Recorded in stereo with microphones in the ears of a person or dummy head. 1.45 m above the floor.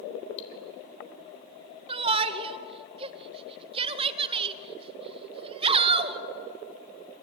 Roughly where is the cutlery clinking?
Left.